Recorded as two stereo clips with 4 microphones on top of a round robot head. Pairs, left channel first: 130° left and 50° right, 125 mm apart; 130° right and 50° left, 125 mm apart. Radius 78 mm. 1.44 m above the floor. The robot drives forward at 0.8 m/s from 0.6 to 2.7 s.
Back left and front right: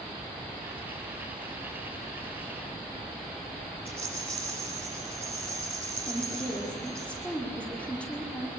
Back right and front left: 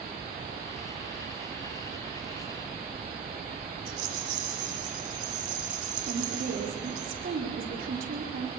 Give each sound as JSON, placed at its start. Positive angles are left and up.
{"t": 3.9, "sound": "a rattle", "azimuth_deg": 50, "distance_m": 8.5}
{"t": 6.1, "sound": "a woman speaking", "azimuth_deg": 50, "distance_m": 5.0}